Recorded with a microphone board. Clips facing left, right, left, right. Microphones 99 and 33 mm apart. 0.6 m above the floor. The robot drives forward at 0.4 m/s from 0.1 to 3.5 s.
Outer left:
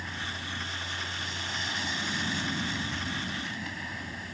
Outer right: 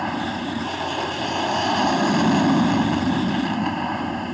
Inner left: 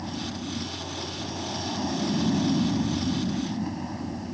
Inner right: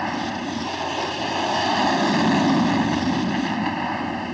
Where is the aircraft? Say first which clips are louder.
Outer right 14 dB, inner right 8 dB; 65° right (ahead or behind); by 4.3 s 60° right (ahead or behind).